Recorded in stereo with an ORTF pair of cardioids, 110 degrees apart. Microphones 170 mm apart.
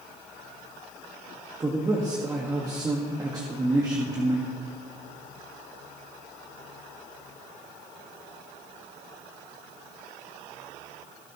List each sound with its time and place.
1.6 s a man speaking: 20° right, 1.4 m